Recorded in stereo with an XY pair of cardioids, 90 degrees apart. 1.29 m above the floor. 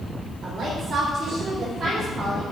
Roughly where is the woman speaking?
Ahead right.